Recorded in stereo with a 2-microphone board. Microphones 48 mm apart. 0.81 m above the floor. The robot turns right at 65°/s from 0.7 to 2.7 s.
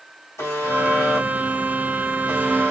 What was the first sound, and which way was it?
A buzzer, 100° left.